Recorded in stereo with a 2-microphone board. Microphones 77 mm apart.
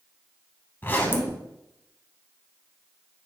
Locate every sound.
0.8 s a zipper: 25° left (ahead or behind), 0.6 m